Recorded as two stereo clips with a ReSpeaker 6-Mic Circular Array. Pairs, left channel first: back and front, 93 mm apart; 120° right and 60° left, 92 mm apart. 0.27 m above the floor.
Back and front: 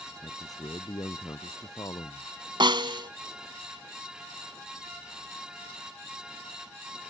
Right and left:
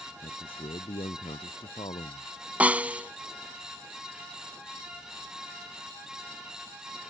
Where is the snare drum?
10° right.